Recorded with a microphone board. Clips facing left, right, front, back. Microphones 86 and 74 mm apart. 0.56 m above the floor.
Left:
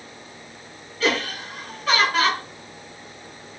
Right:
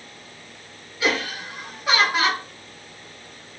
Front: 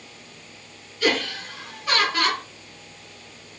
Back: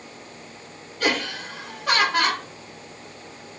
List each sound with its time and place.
1.0 s laughter: 165° right, 1.7 m